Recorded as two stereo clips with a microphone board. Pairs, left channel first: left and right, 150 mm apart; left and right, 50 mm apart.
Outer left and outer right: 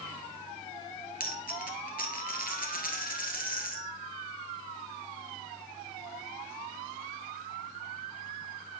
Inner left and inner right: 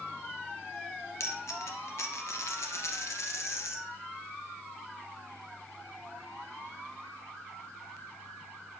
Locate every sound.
1.2 s a dropped coin: 70° left (ahead or behind), 1.5 m